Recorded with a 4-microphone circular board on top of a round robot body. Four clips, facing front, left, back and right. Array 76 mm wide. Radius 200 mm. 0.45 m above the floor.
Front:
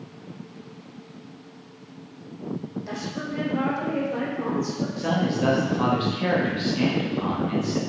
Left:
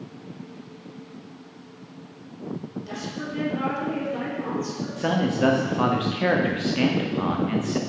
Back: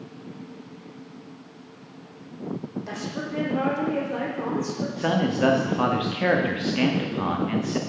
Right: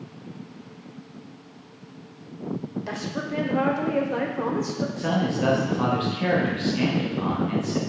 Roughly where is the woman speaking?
Right.